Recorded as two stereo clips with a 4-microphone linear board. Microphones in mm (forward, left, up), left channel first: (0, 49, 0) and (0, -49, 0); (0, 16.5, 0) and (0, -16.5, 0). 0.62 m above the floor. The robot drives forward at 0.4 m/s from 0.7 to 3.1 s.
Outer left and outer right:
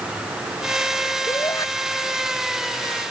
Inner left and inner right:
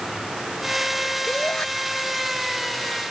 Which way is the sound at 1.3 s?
35° left (ahead or behind).